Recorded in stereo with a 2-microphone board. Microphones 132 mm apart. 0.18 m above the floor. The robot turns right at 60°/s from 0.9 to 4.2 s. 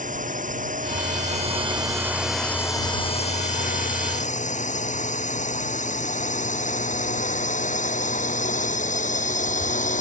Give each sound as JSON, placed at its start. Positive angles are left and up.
{"t": 0.0, "sound": "a drone", "side_deg": -80}